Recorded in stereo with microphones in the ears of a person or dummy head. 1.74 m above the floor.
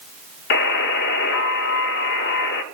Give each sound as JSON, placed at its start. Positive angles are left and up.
{"t": 0.5, "sound": "a buzzer", "side_deg": 65, "distance_m": 0.7}